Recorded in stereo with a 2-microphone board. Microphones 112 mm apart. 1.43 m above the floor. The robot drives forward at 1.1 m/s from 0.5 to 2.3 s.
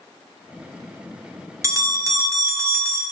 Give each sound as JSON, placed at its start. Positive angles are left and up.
{"t": 1.6, "sound": "a bell", "side_deg": -30, "distance_m": 0.8}